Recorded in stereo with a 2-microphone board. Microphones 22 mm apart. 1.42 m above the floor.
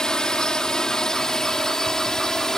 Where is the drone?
35° left (ahead or behind); by 2.6 s 25° left (ahead or behind).